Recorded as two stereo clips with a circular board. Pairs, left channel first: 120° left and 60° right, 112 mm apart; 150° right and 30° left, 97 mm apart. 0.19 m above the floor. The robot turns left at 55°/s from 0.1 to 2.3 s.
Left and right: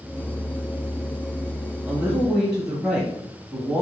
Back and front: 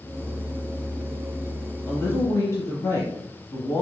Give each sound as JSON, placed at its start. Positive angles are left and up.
{"t": 1.9, "sound": "a woman speaking", "azimuth_deg": -110, "distance_m": 1.0}